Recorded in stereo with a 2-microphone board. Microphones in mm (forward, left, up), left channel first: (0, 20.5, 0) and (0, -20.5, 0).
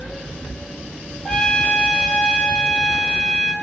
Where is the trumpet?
20° left (ahead or behind), 0.9 m.